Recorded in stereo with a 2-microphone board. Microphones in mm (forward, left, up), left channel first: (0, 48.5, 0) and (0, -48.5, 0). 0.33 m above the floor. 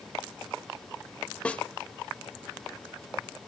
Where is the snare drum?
10° left (ahead or behind), 0.7 m.